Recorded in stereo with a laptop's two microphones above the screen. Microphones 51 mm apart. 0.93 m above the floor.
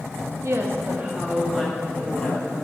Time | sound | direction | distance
0.4 | a woman speaking | 60° right (ahead or behind) | 0.9 m